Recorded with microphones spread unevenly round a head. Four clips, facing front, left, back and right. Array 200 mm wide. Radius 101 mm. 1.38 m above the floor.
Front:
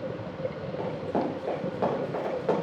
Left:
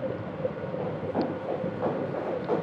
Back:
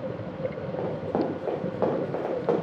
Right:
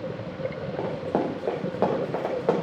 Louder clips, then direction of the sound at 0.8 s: Right 3 dB, back 1 dB; 120° right.